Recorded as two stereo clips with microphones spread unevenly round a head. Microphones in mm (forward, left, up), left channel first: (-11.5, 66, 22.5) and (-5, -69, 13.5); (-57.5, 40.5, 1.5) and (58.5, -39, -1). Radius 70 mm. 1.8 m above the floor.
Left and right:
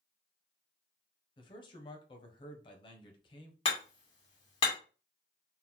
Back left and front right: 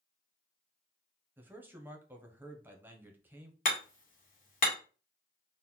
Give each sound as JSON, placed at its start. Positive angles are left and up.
{"t": 1.4, "sound": "a man speaking", "azimuth_deg": 40, "distance_m": 0.8}
{"t": 3.6, "sound": "hammering", "azimuth_deg": 130, "distance_m": 2.0}